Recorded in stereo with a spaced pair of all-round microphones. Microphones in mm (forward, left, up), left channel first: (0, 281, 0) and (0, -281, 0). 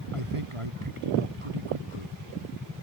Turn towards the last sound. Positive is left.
turn(degrees=-65)  # may be behind; listen again after turning